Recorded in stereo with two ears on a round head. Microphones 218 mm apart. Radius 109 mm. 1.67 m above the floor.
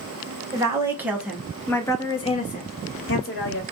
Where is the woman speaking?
15° right (ahead or behind), 1.2 m; by 3.6 s 45° left (ahead or behind), 1.0 m.